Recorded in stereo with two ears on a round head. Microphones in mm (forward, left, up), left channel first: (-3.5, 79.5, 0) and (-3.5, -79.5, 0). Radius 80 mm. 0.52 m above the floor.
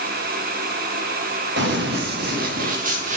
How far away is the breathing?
I don't hear breathing.